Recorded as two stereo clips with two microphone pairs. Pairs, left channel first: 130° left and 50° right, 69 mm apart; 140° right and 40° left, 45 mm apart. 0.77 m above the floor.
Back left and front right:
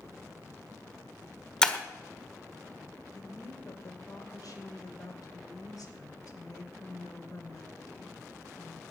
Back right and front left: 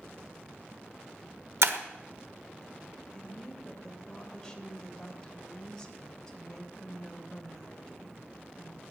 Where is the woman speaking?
150° left, 3 m.